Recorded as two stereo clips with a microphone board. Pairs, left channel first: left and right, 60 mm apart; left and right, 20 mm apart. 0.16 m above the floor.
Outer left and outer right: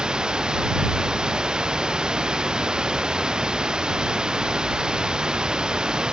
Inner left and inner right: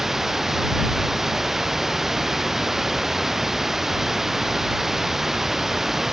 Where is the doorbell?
No doorbell in this recording.